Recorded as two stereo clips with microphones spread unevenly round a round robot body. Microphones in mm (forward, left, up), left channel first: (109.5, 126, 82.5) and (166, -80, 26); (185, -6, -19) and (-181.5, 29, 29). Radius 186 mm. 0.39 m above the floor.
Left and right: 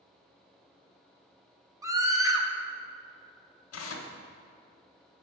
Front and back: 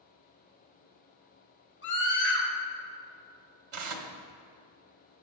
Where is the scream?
30° right, 1.7 m.